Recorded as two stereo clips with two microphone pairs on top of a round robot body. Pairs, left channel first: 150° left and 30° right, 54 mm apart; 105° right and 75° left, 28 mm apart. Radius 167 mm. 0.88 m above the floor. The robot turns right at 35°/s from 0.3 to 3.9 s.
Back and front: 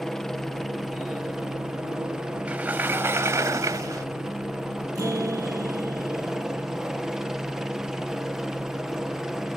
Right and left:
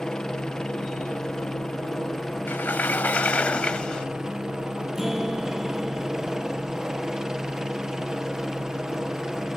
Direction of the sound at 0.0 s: 110° right.